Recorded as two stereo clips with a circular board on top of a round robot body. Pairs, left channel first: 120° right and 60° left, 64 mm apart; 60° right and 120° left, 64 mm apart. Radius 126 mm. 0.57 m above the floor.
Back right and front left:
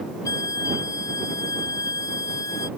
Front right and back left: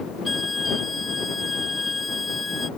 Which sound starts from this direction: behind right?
A violin, at 0.2 s.